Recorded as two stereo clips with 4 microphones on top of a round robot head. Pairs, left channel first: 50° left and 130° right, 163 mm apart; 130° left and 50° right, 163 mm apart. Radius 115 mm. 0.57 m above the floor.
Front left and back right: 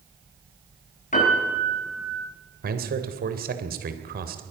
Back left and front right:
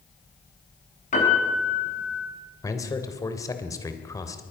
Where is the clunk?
No clunk in this recording.